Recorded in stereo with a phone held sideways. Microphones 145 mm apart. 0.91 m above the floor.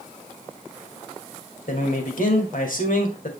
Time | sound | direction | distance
1.7 | a man speaking | 65° left (ahead or behind) | 2.5 m